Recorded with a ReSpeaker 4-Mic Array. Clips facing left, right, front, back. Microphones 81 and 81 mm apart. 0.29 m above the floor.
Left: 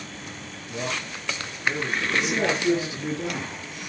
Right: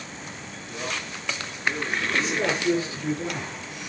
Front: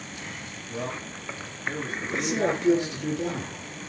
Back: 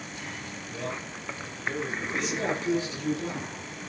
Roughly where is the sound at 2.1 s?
Ahead.